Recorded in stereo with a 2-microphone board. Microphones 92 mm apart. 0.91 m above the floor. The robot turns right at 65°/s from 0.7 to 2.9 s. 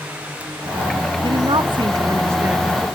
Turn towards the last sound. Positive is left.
turn(degrees=5)